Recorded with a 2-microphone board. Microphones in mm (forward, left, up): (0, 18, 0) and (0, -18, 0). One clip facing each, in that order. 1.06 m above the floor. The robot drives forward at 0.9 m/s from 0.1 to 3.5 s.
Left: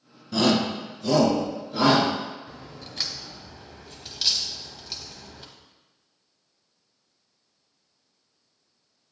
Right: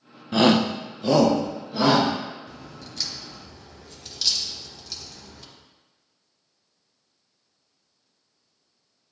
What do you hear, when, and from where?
0.3 s a shout: 35° right (ahead or behind), 0.5 m; by 2.1 s 15° right (ahead or behind), 1.4 m
2.5 s a crack: 30° left (ahead or behind), 0.7 m; by 5.5 s 20° left (ahead or behind), 0.9 m